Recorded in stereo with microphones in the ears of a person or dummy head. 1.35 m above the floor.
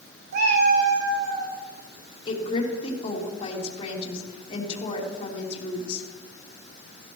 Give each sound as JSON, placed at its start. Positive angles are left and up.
{"t": 0.3, "sound": "a cat meowing", "side_deg": -55, "distance_m": 1.9}
{"t": 2.3, "sound": "a woman speaking", "side_deg": 25, "distance_m": 2.5}